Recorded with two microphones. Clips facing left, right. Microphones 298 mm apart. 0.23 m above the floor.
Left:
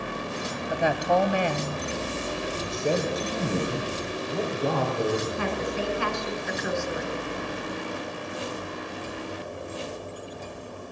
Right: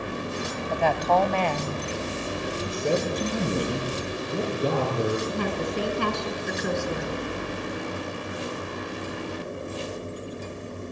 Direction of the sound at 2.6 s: 20° right (ahead or behind).